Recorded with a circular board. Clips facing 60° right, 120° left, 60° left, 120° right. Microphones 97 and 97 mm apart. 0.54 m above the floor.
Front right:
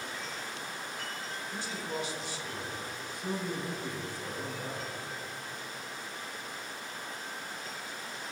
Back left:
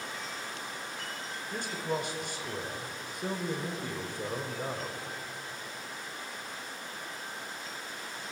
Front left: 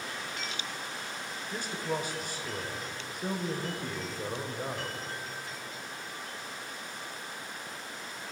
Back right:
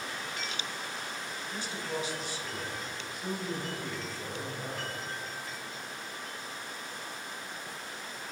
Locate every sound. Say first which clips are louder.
1.5 s a man speaking: back left 5 dB, front left 3 dB; 95° left, 1.9 m